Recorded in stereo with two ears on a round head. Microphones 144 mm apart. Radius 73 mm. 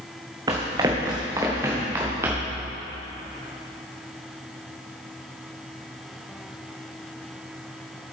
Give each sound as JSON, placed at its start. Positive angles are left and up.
{"t": 0.5, "sound": "running footsteps", "side_deg": -25, "distance_m": 1.6}